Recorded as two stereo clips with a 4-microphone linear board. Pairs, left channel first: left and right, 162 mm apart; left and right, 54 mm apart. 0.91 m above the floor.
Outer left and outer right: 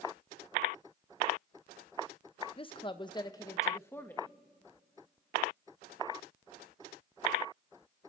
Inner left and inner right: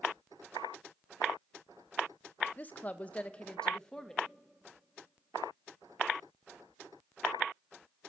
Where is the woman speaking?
35° left (ahead or behind), 0.7 m; by 4.3 s 10° left (ahead or behind), 1.3 m.